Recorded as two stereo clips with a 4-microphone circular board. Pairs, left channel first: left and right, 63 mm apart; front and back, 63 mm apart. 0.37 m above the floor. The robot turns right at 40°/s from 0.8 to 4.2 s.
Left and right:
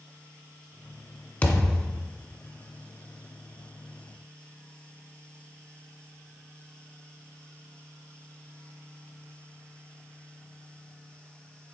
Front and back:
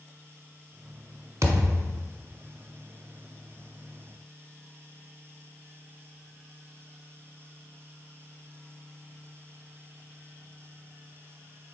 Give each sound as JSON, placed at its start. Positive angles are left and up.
{"t": 1.4, "sound": "a thud", "azimuth_deg": 155, "distance_m": 0.6}